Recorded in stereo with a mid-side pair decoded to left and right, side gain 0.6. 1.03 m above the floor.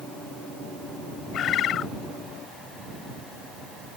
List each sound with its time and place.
1.3 s a bird: 50° left